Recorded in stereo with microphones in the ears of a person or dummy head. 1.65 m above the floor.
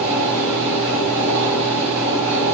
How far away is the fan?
About 6.5 m.